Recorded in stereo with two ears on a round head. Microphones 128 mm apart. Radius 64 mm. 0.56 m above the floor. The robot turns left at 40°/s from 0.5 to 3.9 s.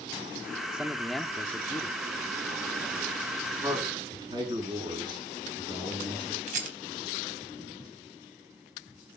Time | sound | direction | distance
0.7 | a man speaking | 170° right | 0.8 m
3.6 | a man speaking | 20° right (ahead or behind) | 7.5 m
6.5 | a rattle | 60° right (ahead or behind) | 3.5 m